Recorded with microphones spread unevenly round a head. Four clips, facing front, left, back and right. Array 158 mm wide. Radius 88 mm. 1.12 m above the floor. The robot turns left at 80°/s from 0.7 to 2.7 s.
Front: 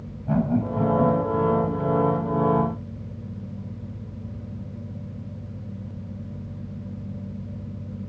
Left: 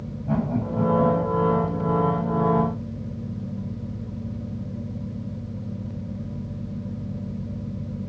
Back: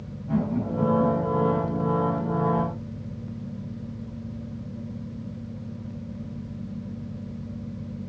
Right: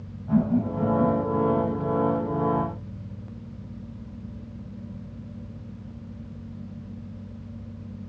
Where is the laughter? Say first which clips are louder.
Right 2 dB, front 3 dB; 45° left, 6.5 m; by 1.7 s 35° right, 6.5 m.